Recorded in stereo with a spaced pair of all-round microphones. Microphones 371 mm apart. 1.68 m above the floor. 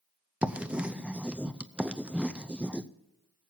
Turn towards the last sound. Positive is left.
turn(degrees=-5)  # may be behind; listen again after turning